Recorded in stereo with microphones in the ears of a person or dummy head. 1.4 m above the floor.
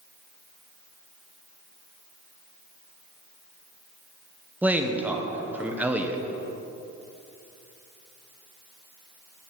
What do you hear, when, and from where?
4.6 s a man speaking: 5° right (ahead or behind), 0.9 m